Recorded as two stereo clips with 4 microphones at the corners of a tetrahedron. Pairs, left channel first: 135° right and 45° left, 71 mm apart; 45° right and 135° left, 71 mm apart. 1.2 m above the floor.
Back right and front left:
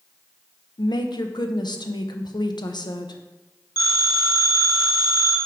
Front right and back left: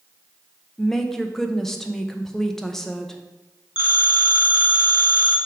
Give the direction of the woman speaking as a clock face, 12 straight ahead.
4 o'clock.